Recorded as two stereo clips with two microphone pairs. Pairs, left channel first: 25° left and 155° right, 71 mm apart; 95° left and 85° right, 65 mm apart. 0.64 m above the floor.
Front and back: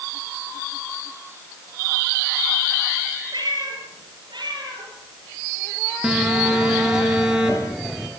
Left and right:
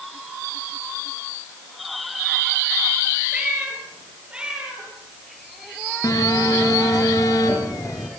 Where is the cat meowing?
155° right, 7.5 m; by 5.9 s 160° right, 11.5 m.